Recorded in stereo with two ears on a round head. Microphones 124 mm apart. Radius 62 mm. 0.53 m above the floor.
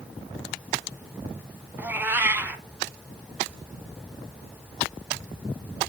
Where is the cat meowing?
15° right (ahead or behind), 0.8 m.